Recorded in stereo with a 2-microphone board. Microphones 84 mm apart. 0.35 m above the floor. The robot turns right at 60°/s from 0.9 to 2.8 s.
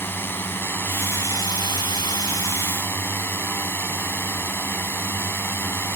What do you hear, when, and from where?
0.0 s a drone: 30° left; by 6.0 s 145° left